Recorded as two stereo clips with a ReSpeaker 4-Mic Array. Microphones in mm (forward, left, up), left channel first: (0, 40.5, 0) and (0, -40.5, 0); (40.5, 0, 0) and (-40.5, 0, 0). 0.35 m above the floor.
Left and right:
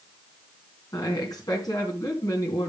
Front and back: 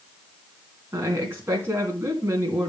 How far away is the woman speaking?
About 3 m.